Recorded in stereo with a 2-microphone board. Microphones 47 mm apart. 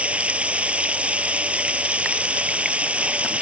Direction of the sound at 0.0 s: 25° right (ahead or behind).